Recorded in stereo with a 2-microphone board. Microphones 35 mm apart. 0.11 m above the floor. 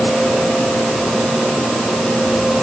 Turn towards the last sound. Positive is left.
No sound to turn to.